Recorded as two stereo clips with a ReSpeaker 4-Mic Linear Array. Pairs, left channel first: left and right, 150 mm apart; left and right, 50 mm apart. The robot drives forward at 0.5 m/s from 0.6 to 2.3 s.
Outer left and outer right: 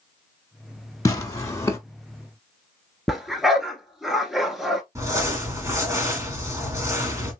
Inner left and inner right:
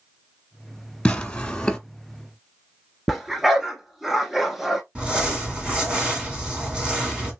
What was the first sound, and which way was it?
Tearing paper, 20° left (ahead or behind).